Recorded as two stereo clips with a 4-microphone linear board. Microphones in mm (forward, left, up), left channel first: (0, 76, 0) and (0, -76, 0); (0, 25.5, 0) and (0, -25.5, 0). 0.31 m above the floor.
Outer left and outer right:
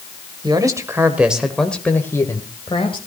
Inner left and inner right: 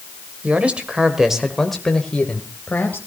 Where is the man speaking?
30° right (ahead or behind), 1.6 m; by 3.0 s 35° left (ahead or behind), 1.7 m.